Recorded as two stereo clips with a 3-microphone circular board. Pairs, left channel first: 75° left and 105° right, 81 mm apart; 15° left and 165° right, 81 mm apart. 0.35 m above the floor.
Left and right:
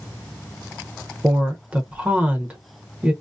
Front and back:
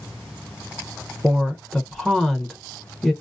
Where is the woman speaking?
70° right, 0.9 m.